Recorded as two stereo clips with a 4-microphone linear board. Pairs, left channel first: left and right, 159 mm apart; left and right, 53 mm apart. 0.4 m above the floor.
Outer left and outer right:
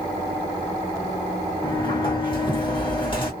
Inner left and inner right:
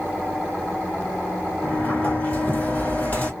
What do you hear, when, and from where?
1.6 s a sliding door: 30° left (ahead or behind), 1.3 m